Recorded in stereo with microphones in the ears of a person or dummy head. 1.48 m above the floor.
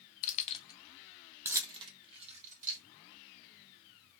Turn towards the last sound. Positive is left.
turn(degrees=-45)  # may be behind; listen again after turning